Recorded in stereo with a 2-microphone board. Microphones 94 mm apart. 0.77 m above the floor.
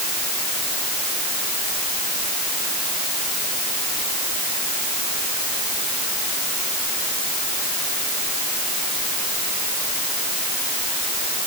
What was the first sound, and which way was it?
Only background noise.